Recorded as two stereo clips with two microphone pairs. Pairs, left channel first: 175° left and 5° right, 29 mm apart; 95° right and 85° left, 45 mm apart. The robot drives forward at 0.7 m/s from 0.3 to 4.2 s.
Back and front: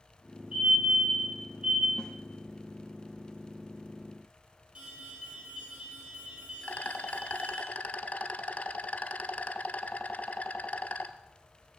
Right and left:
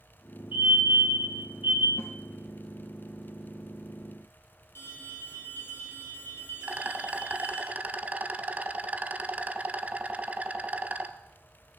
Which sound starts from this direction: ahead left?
A fire alarm, at 0.5 s.